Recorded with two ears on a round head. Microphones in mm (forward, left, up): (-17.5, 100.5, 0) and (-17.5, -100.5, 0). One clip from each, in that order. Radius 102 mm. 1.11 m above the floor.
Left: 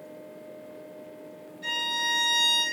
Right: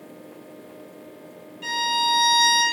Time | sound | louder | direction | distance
1.6 | a violin | right 5 dB | 45° right (ahead or behind) | 1.4 m